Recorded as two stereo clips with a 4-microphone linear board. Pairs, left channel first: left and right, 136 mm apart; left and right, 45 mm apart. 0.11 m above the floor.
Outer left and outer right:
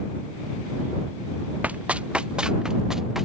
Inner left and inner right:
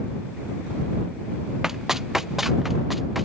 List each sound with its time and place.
1.6 s running footsteps: 10° right (ahead or behind); by 3.2 s centre (ahead or behind)